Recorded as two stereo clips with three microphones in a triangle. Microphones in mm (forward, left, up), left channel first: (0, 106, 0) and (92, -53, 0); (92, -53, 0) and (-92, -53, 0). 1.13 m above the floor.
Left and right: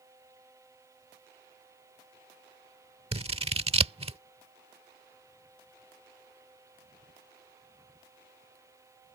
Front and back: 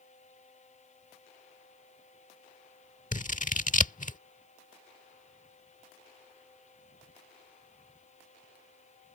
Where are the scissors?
15° right.